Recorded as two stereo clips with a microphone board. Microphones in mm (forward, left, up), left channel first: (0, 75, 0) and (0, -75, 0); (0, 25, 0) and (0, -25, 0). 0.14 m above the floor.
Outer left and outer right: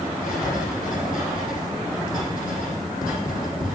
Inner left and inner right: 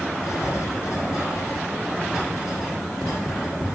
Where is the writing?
70° left (ahead or behind), 7 m.